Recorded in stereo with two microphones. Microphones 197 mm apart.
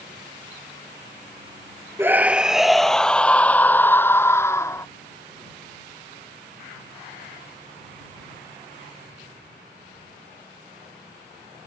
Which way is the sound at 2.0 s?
10° right (ahead or behind).